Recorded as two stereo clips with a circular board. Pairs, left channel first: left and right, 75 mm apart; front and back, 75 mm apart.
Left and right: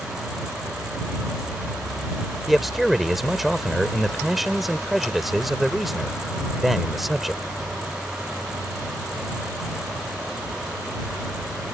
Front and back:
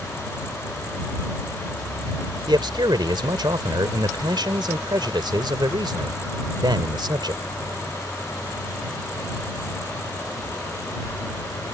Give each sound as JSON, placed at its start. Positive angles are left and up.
{"t": 2.5, "sound": "a man speaking", "azimuth_deg": 180}